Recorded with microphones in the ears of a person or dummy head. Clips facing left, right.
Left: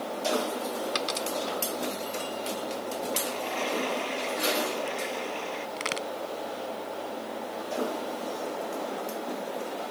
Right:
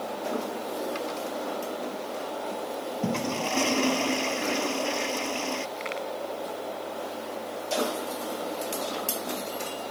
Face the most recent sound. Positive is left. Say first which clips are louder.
# right 1 dB
turn(degrees=45)  # may be behind; listen again after turning